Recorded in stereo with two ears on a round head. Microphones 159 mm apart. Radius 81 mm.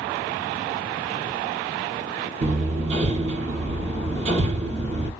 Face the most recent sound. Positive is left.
turn(degrees=-40)  # may be behind; listen again after turning